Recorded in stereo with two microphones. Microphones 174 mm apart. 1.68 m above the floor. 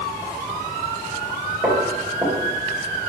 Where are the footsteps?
5° right (ahead or behind), 1.7 m.